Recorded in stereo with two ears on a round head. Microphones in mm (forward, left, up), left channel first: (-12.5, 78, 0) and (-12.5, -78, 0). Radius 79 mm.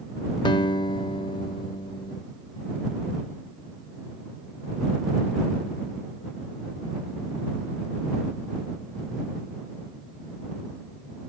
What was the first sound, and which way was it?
A guitar, 25° left (ahead or behind).